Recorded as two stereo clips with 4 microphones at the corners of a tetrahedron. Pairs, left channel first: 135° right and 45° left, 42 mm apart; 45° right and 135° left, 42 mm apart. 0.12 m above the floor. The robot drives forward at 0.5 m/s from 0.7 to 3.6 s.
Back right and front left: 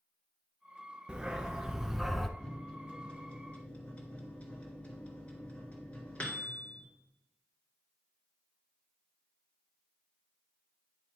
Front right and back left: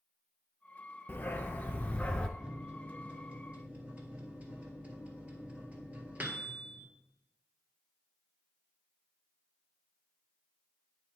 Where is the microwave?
175° right, 1.2 m; by 6.9 s straight behind, 1.6 m.